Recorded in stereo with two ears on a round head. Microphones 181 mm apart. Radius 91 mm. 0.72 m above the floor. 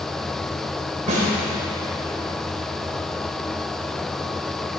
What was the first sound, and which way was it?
A snare drum, 40° right (ahead or behind).